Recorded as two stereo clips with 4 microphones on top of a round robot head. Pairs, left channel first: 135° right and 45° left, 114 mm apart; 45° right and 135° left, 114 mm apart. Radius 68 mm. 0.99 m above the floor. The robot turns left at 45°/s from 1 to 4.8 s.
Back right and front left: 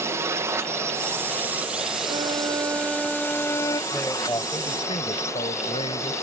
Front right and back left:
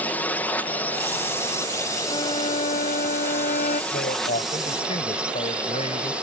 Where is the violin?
5° left; by 3.8 s 75° right.